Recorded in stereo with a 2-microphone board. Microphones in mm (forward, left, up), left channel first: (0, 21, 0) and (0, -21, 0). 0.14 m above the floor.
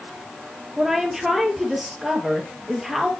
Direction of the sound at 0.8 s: 5° right (ahead or behind).